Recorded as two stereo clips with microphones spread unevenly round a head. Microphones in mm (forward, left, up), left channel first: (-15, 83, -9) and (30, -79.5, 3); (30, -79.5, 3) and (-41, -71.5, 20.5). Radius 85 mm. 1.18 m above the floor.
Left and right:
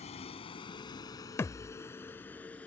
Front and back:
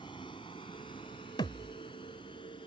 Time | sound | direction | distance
0.0 | a vehicle | 50° left | ?
1.4 | a thud | 30° left | ?